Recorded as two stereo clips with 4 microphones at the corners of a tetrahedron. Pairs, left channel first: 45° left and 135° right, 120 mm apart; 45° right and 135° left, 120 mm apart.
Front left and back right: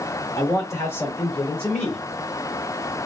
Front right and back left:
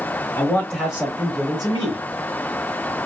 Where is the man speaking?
5° left, 1.0 m; by 2.0 s 130° left, 1.3 m.